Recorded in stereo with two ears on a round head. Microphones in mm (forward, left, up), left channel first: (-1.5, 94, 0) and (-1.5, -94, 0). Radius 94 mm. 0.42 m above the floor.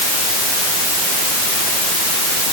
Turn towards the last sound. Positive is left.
No sound to turn to.